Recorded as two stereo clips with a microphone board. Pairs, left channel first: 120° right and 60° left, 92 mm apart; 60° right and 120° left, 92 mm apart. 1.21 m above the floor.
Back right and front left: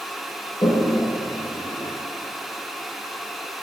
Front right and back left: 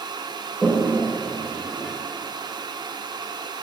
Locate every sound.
0.6 s a toilet flushing: 155° right, 1.3 m